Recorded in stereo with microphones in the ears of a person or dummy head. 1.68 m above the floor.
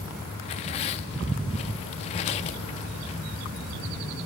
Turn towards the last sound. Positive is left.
turn(degrees=35)  # may be behind; listen again after turning